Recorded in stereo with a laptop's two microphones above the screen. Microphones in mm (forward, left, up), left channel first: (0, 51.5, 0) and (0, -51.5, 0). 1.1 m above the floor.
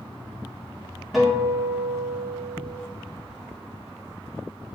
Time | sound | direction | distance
1.1 | a guitar | 5° right (ahead or behind) | 3.5 m